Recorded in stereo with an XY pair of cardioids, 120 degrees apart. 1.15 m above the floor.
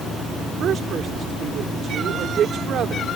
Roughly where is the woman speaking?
Ahead right.